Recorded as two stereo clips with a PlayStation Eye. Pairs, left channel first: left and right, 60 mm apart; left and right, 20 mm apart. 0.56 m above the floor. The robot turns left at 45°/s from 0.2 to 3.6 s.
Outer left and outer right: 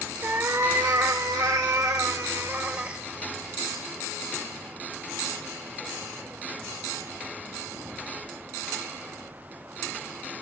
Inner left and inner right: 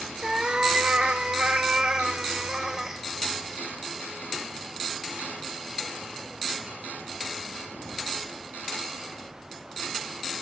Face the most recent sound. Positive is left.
turn(degrees=170)